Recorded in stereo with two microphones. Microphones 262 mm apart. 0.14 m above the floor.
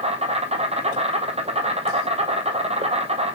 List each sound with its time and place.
0.0 s an insect: 25° right (ahead or behind), 1.1 m